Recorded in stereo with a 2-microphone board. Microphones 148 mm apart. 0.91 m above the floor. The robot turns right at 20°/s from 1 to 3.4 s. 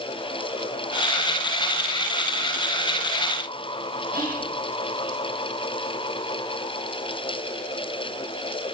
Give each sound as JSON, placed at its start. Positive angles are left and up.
{"t": 4.1, "sound": "whispering", "side_deg": -70, "distance_m": 7.0}